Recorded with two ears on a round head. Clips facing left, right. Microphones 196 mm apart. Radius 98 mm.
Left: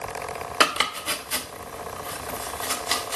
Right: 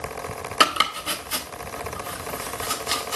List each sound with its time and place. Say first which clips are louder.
0.6 s chopping: right 1 dB; 5° right (ahead or behind), 1.1 m